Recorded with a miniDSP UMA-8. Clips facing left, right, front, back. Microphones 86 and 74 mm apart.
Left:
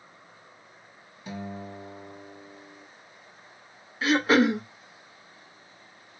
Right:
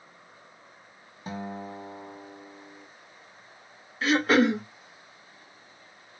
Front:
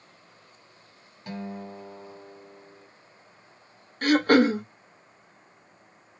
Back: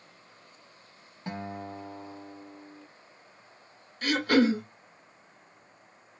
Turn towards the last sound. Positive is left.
turn(degrees=0)